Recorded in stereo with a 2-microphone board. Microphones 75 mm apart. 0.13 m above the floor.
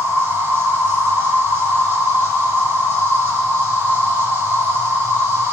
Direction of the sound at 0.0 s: 35° right (ahead or behind).